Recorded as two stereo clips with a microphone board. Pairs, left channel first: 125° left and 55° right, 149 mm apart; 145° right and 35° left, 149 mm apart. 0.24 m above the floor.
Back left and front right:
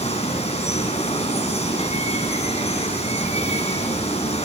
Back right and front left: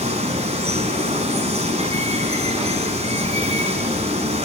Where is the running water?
75° left, 8.5 m.